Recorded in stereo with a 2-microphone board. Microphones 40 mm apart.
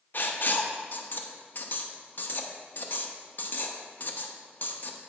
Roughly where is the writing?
Left.